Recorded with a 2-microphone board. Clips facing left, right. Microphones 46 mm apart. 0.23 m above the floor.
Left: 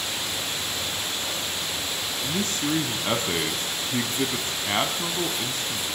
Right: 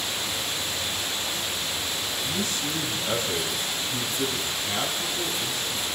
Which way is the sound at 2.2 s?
50° left (ahead or behind).